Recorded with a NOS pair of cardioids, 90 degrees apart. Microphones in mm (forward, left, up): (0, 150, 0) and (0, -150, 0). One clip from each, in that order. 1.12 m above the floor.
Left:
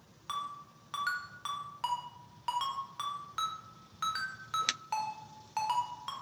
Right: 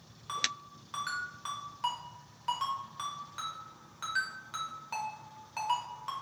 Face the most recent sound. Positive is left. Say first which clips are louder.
# right 4 dB
turn(degrees=25)